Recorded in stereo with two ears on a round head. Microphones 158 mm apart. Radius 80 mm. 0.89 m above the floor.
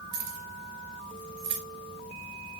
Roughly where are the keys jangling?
Right.